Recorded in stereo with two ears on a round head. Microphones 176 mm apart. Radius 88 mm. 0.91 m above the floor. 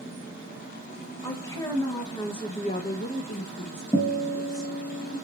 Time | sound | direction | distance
1.2 | a woman speaking | 15° left (ahead or behind) | 1.2 m
3.9 | a guitar | 10° left (ahead or behind) | 0.7 m